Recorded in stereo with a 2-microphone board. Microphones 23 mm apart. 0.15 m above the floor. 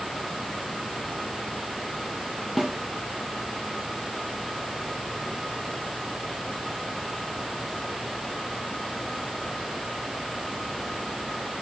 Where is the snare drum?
5° right (ahead or behind), 1.6 m.